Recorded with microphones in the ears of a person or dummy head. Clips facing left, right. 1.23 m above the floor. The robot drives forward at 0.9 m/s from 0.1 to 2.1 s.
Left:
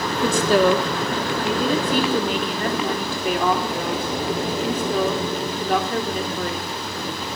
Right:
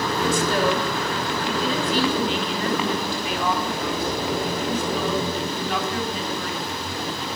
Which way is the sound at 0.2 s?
60° left (ahead or behind).